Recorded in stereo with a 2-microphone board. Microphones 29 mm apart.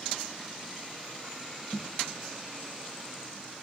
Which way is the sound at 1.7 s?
40° left (ahead or behind).